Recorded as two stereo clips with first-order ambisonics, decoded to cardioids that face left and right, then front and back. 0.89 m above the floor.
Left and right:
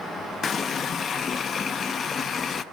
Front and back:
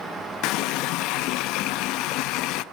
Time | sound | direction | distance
0.4 | a running tap | 25° left | 0.6 m